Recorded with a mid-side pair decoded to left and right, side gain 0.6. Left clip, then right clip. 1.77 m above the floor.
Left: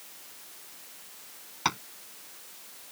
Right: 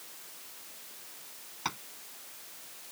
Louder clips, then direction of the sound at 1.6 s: Left 7 dB; 35° left.